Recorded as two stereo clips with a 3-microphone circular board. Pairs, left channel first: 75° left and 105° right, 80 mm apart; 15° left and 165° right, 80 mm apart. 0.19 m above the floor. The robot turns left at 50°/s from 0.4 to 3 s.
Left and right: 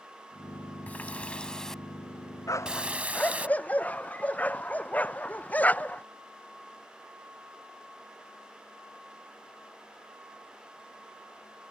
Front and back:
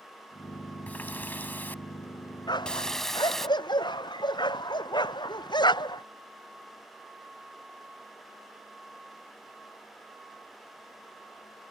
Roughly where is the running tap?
Ahead left.